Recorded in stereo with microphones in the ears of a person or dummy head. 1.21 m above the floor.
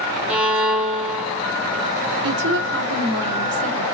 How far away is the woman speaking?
About 1.0 m.